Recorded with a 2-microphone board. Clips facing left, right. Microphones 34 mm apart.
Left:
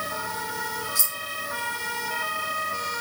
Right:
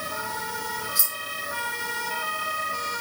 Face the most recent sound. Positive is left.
turn(degrees=-15)  # may be behind; listen again after turning